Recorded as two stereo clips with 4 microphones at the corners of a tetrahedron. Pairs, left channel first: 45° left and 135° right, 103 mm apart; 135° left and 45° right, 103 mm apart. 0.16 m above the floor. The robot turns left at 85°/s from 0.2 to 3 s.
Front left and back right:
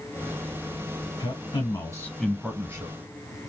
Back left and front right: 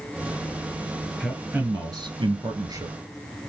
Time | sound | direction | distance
1.2 | a man speaking | 55° left | 1.5 m